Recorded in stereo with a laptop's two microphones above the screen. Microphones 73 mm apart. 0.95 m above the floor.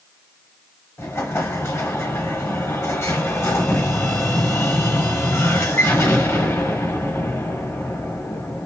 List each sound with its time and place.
1.0 s an explosion: 40° left (ahead or behind), 1.5 m